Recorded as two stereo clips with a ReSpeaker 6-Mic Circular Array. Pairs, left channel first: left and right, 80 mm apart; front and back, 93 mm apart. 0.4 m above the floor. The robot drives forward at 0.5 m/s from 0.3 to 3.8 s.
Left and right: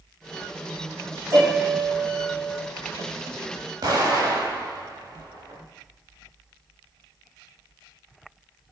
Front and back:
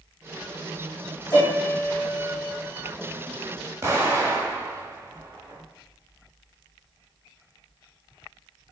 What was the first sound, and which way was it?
A piano, 55° right.